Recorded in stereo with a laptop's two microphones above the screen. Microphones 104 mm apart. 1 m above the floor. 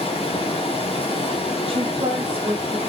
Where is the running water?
65° left (ahead or behind), 1.5 m.